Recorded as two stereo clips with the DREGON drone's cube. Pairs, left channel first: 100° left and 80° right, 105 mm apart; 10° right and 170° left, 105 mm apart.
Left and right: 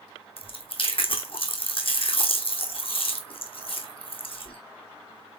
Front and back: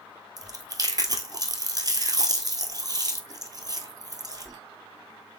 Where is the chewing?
120° left, 1.0 m.